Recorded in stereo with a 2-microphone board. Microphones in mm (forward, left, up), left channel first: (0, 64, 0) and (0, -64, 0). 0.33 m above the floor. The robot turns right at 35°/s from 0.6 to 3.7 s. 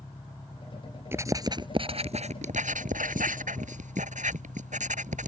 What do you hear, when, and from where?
0.0 s an engine running: 20° left; by 5.3 s 130° left
1.1 s writing: 20° right (ahead or behind); by 5.3 s 70° right (ahead or behind)